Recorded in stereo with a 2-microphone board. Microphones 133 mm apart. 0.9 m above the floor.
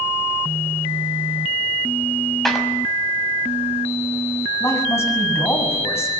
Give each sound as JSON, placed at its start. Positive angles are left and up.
{"t": 2.5, "sound": "a clap", "side_deg": 0, "distance_m": 5.0}
{"t": 4.6, "sound": "a man speaking", "side_deg": 20, "distance_m": 7.0}